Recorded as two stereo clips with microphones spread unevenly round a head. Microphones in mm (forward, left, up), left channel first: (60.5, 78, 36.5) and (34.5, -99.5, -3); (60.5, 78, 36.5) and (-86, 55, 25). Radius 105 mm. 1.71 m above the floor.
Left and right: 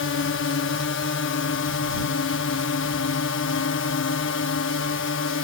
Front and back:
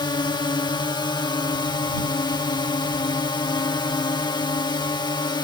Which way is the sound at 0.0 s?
70° left.